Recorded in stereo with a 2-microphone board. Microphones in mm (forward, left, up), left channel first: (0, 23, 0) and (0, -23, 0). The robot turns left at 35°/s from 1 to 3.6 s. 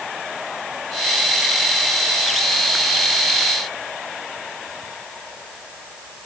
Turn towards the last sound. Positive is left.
No sound to turn to.